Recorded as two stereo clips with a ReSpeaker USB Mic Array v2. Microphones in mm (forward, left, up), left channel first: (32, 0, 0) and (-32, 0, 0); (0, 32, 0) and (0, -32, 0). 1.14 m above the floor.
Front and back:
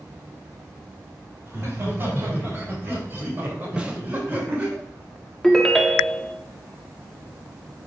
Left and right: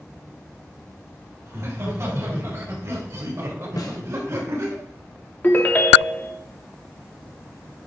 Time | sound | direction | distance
1.4 | laughter | 130° right | 3.5 m
3.8 | a snare drum | 110° left | 1.0 m
5.4 | a ringtone | 70° left | 0.7 m